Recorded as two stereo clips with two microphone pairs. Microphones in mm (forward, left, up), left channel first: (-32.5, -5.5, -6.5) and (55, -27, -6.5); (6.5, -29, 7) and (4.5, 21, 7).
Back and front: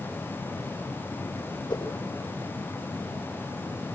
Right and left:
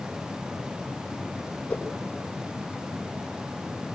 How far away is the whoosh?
About 9.5 m.